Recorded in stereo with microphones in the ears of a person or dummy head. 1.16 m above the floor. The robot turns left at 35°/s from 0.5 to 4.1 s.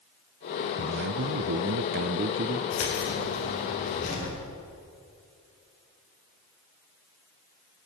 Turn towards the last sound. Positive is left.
turn(degrees=40)